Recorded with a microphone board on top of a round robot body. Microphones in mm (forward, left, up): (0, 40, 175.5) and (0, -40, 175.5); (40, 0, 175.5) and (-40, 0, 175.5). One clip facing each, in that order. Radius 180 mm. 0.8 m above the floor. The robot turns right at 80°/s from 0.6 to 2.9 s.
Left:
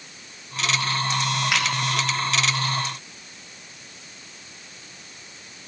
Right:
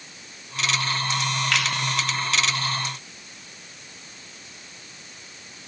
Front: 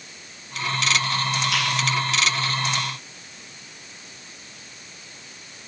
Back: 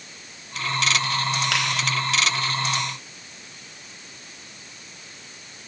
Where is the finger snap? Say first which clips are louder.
Even, even; 165° left, 5 m; by 1.6 s 170° left, 5 m.